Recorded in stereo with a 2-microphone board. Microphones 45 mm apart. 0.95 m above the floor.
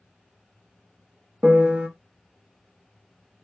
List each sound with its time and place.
1.4 s a piano: 25° right (ahead or behind), 0.6 m